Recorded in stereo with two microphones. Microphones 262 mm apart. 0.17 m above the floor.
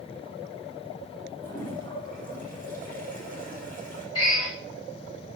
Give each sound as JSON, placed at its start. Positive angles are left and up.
{"t": 1.4, "sound": "a toilet flushing", "side_deg": 30, "distance_m": 4.5}
{"t": 4.2, "sound": "a drill", "side_deg": 65, "distance_m": 7.5}